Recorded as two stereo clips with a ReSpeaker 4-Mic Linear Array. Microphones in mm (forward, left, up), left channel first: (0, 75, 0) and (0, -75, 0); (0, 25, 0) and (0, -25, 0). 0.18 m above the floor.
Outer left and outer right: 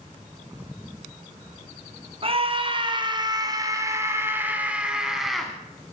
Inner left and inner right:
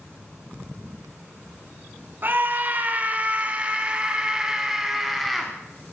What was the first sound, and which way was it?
A scream, 40° right (ahead or behind).